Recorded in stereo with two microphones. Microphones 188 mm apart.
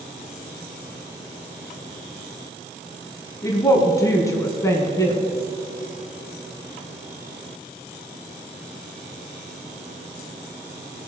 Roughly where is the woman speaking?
Centre.